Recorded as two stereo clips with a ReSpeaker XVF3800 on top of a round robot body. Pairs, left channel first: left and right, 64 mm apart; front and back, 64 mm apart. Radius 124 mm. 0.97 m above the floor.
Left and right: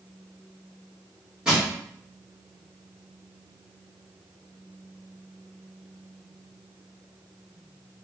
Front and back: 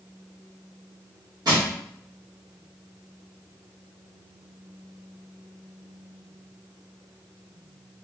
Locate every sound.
1.4 s crushing: 170° right, 1.8 m